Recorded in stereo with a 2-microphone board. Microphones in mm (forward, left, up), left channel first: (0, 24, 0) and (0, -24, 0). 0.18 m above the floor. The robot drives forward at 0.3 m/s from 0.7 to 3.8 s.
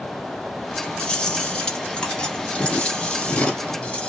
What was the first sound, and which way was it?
Chewing, 20° left (ahead or behind).